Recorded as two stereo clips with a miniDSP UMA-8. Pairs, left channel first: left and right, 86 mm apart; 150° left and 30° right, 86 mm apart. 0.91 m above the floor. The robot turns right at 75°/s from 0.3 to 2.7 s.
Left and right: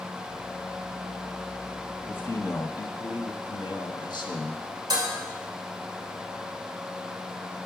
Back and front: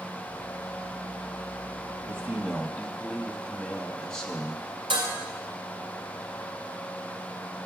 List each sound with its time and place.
2.0 s a man speaking: 20° left, 1.2 m; by 4.6 s 70° left, 1.2 m
4.9 s dishes clattering: 50° right, 2.5 m